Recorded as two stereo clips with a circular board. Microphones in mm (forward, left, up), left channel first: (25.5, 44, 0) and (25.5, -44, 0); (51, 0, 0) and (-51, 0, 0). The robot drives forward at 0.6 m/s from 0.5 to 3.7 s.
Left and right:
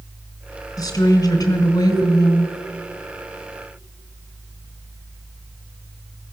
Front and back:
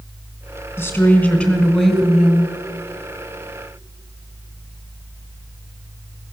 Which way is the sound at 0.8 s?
60° left.